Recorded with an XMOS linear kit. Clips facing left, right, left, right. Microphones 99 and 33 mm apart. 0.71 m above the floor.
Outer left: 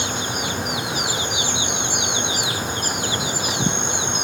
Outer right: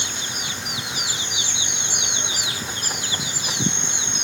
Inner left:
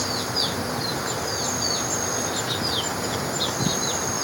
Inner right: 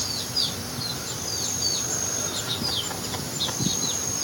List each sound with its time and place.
0.0 s an insect: 45° left (ahead or behind)